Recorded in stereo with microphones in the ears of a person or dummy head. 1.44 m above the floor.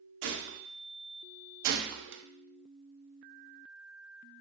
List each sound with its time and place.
0.2 s a gunshot: 60° right (ahead or behind), 0.7 m
1.6 s a gunshot: 65° right (ahead or behind), 0.7 m